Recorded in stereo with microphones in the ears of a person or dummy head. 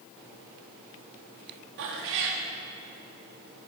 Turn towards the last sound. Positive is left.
turn(degrees=-60)  # may be behind; listen again after turning